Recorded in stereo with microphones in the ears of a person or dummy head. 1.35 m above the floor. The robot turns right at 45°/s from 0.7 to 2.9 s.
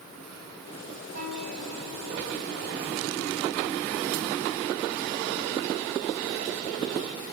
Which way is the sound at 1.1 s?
125° right.